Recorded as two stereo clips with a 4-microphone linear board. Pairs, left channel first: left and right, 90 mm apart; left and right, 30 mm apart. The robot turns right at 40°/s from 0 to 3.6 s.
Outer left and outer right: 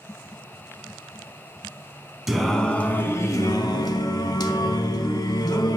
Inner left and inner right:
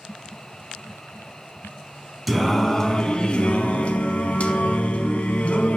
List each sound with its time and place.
2.3 s singing: 5° right, 0.5 m; by 5.8 s 50° left, 0.5 m